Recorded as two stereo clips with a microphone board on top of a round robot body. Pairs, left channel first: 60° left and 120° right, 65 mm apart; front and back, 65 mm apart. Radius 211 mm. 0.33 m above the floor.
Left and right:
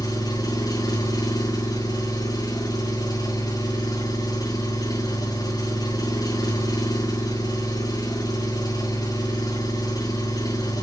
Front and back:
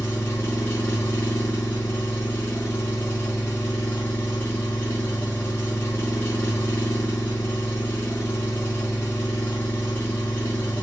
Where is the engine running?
55° left, 5 m.